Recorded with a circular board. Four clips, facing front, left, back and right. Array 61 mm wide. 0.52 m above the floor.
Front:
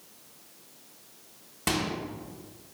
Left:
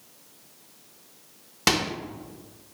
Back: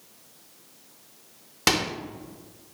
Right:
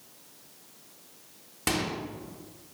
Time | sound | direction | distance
1.7 | a microwave | 140° left | 0.6 m